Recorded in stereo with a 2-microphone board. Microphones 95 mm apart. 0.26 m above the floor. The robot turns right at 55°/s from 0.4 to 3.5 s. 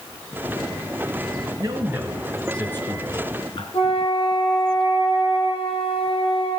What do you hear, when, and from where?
1.6 s a man speaking: 40° right, 4 m; by 3.6 s 65° left, 4 m
3.7 s a flute: 75° left (ahead or behind), 10 m